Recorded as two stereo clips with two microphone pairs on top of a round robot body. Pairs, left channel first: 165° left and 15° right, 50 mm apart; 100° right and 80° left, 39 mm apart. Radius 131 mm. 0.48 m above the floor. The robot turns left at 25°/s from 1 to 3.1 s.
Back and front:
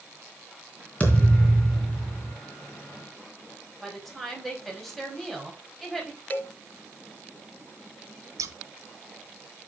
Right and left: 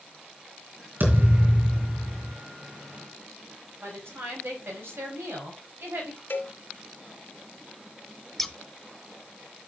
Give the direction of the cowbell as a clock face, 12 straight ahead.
5 o'clock.